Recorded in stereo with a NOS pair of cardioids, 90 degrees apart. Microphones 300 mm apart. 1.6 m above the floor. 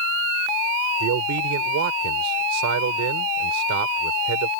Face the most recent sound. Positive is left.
turn(degrees=-70)